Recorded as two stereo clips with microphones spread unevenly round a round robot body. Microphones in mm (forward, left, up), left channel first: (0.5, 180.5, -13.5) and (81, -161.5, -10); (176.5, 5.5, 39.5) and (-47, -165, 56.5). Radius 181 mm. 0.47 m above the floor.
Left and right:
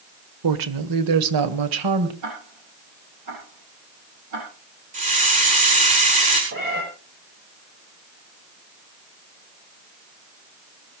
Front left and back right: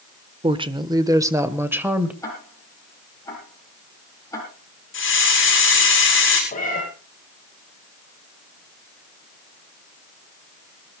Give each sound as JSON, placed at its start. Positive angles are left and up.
{"t": 0.4, "sound": "a woman speaking", "azimuth_deg": -75, "distance_m": 1.6}
{"t": 2.2, "sound": "ticking", "azimuth_deg": -40, "distance_m": 9.0}
{"t": 4.9, "sound": "a hiss", "azimuth_deg": -10, "distance_m": 7.0}
{"t": 6.5, "sound": "a cat meowing", "azimuth_deg": -25, "distance_m": 9.0}